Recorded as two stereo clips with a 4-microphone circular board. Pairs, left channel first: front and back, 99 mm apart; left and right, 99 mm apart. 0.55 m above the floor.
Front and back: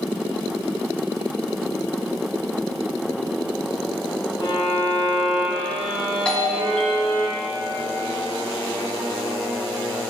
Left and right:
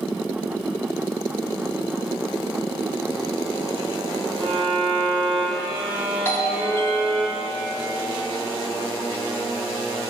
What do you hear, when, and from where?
4.4 s a violin: 55° right, 4.5 m
6.2 s a doorbell: 65° left, 1.4 m